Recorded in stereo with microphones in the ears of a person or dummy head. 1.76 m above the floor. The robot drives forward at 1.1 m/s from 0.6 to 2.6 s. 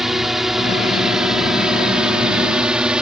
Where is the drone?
5° right (ahead or behind); by 3.0 s 10° right (ahead or behind).